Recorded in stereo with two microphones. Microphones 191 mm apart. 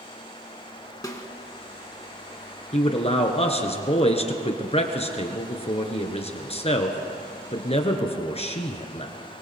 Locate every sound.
1.0 s a snare drum: 20° left (ahead or behind), 1.7 m
2.7 s a man speaking: 35° left (ahead or behind), 1.7 m